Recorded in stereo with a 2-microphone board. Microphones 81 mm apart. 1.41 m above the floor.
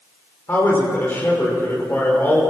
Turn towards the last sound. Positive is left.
turn(degrees=25)  # may be behind; listen again after turning